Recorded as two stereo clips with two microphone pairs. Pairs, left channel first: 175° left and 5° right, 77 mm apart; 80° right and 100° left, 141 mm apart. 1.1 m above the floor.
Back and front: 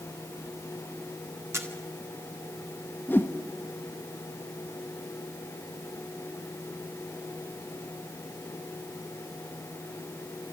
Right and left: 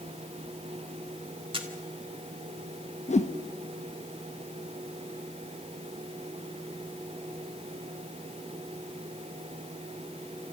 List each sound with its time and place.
1.5 s a camera shutter: 50° left, 2 m
3.1 s a whoosh: 120° right, 1.0 m